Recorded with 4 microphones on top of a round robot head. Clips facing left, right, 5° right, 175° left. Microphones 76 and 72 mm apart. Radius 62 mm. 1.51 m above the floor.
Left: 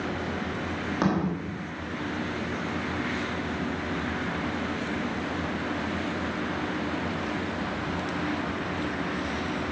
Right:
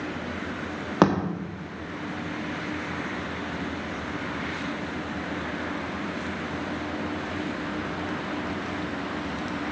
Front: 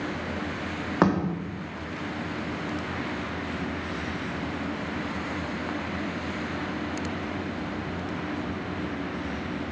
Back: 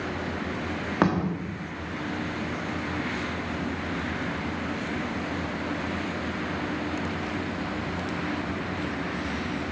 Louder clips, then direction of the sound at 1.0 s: Right 6 dB, front 1 dB; 80° right.